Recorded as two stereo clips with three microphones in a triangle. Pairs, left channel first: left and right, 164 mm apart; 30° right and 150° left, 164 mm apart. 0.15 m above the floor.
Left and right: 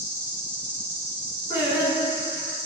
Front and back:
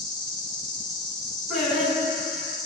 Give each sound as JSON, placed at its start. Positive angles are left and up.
{"t": 0.0, "sound": "an insect", "azimuth_deg": 20, "distance_m": 1.7}
{"t": 1.5, "sound": "singing", "azimuth_deg": 65, "distance_m": 1.8}